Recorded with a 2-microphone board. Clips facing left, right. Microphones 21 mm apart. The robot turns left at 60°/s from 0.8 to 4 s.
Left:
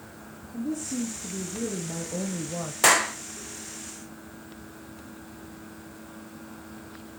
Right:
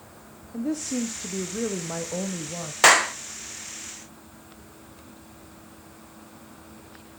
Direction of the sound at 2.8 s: 25° right (ahead or behind).